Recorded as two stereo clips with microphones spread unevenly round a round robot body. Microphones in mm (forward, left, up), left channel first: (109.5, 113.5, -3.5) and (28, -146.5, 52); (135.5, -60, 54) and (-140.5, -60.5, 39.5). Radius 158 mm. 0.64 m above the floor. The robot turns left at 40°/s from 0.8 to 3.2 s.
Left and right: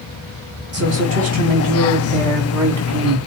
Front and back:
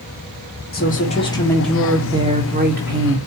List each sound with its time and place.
0.7 s a woman speaking: 55° right, 2 m; by 3.2 s 150° right, 2 m